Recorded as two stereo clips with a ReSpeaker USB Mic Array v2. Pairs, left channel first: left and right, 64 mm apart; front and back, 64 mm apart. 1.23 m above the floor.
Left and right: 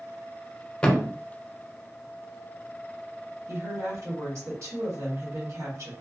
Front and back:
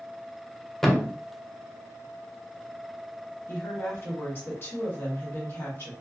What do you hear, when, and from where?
0.8 s a thud: 65° left, 0.5 m
3.5 s a woman speaking: 50° right, 1.2 m